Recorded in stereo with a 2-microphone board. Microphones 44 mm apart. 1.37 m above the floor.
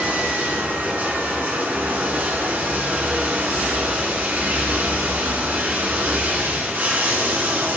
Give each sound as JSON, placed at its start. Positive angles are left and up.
{"t": 0.0, "sound": "running water", "side_deg": -45, "distance_m": 6.0}